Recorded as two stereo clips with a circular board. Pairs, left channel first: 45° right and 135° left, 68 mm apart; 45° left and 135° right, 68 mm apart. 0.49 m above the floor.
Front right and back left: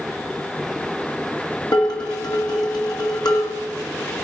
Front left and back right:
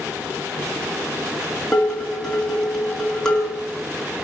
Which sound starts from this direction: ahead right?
Dishes clattering, at 1.7 s.